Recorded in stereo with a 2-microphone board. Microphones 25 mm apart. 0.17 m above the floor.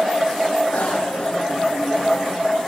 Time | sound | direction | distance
0.7 | a bicycle bell | 70° left (ahead or behind) | 5 m